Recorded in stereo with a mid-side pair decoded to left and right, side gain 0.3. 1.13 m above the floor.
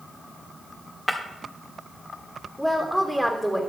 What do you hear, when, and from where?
1.1 s breaking glass: 15° left, 1.7 m
2.6 s a woman speaking: 5° right, 2.5 m